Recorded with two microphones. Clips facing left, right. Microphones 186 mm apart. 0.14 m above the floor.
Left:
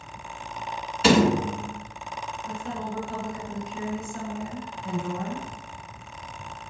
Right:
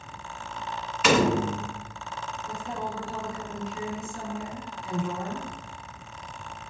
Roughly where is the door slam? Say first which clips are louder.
Left 3 dB; left.